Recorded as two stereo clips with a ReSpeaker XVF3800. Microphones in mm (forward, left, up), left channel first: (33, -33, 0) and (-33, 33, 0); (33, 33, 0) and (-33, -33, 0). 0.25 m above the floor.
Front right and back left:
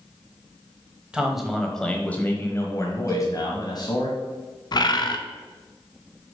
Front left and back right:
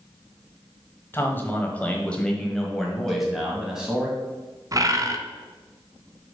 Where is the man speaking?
65° left, 1.1 m; by 4.1 s 55° right, 1.6 m.